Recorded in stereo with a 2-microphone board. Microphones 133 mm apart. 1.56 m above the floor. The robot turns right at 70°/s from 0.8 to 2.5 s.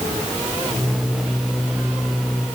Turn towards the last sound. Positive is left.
No sound to turn to.